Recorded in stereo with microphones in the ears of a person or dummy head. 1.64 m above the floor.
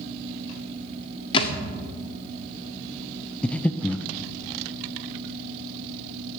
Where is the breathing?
5° left (ahead or behind), 0.7 m.